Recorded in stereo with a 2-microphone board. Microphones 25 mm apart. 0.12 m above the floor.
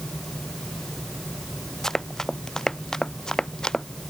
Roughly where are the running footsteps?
Left.